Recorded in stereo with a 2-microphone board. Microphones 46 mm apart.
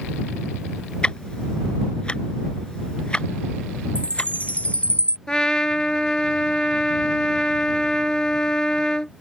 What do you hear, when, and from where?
1.0 s ticking: 20° left (ahead or behind)
4.0 s a chime: 30° left (ahead or behind)
5.3 s a trumpet: 15° left (ahead or behind)